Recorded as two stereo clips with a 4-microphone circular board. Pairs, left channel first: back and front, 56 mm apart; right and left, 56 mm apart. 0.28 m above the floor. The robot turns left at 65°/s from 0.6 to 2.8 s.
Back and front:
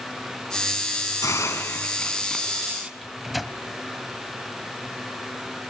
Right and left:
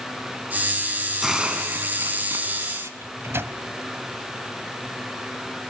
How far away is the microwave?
About 1.5 m.